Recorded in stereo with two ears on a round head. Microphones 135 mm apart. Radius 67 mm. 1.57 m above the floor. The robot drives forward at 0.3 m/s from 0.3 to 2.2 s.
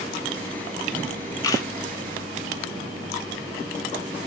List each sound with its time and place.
1.4 s a camera shutter: 25° left (ahead or behind), 0.7 m; by 1.7 s 20° left (ahead or behind), 0.7 m